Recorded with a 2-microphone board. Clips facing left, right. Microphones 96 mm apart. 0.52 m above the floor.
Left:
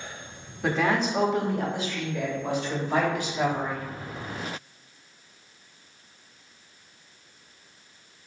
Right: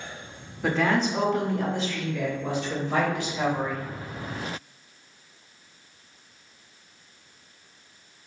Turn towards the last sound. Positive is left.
turn(degrees=20)  # may be behind; listen again after turning